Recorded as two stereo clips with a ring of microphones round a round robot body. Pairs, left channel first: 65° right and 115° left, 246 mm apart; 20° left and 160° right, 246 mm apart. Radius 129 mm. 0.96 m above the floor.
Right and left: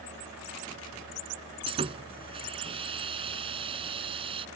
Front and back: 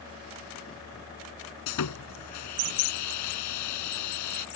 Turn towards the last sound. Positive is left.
turn(degrees=45)